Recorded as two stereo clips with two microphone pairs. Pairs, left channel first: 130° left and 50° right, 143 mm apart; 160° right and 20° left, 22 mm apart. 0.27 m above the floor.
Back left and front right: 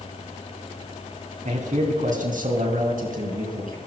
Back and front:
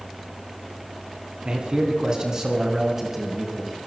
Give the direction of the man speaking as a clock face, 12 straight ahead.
1 o'clock.